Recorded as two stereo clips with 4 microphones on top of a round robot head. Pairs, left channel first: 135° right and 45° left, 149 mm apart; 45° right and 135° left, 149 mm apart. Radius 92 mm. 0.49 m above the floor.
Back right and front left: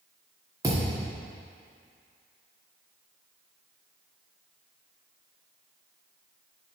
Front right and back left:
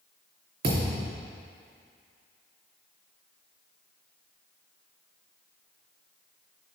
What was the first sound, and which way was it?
A thud, 115° left.